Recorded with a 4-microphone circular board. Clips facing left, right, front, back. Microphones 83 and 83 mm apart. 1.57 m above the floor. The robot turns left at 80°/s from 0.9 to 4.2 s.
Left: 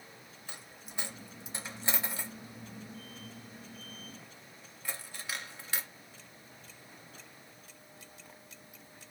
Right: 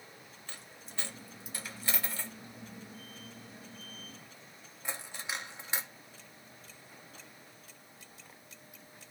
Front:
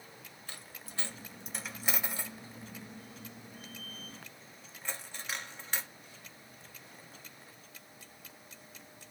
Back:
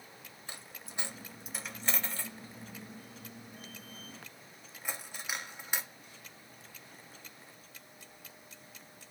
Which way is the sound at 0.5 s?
145° left.